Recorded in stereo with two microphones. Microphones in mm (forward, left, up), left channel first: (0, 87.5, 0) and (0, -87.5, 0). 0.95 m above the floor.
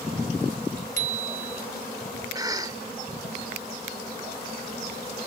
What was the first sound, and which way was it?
A bicycle bell, 45° right (ahead or behind).